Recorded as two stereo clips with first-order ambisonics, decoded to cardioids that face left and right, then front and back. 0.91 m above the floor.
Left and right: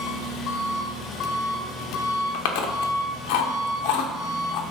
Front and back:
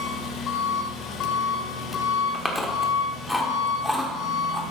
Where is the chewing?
90° left, 1.1 m.